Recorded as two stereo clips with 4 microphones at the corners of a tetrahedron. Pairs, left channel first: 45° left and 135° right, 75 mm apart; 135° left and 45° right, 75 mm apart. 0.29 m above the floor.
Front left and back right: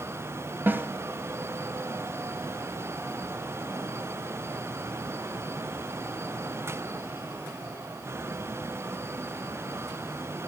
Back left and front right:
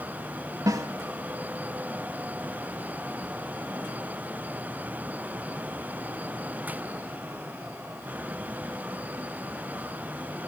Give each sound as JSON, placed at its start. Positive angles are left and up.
{"t": 0.7, "sound": "a snare drum", "azimuth_deg": -75, "distance_m": 0.7}